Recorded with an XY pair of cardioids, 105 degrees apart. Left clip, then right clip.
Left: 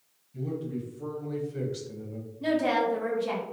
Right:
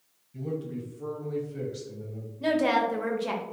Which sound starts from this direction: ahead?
A man speaking, at 0.3 s.